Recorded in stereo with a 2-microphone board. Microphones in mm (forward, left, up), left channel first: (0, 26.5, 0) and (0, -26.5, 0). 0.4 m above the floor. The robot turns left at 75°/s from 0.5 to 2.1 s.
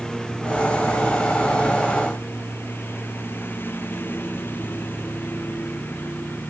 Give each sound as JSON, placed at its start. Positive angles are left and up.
{"t": 0.0, "sound": "a lawn mower", "side_deg": 10}